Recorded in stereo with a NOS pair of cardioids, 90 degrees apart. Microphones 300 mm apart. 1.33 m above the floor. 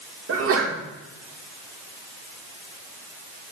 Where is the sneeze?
50° right, 2 m.